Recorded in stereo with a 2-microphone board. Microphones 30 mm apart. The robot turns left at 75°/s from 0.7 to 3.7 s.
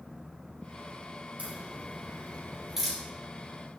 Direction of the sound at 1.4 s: 60° right (ahead or behind).